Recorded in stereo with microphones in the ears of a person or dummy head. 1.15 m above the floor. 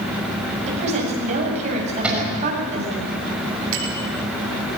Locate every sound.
0.7 s a woman speaking: 40° right (ahead or behind), 8.5 m
2.0 s a cupboard door: 5° right (ahead or behind), 6 m
3.7 s a bicycle bell: 70° right (ahead or behind), 7 m